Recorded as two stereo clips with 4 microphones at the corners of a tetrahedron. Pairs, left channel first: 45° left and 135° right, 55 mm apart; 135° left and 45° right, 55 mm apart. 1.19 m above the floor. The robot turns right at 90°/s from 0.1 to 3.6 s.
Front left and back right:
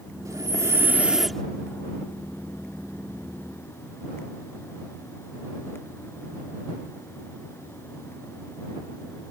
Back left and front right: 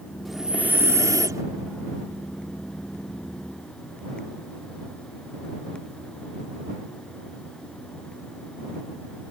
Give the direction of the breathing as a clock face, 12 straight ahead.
5 o'clock.